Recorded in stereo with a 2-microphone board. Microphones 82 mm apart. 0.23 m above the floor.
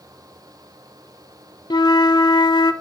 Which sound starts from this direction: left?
A flute, at 1.7 s.